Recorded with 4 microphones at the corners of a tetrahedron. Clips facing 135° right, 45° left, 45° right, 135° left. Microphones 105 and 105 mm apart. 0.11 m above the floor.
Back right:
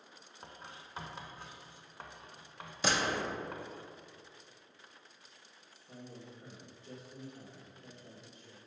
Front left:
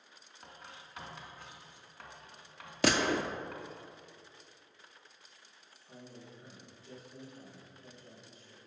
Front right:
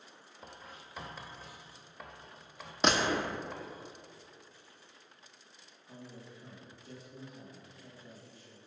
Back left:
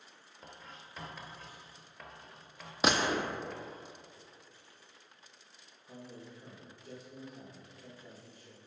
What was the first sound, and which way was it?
Writing, 120° right.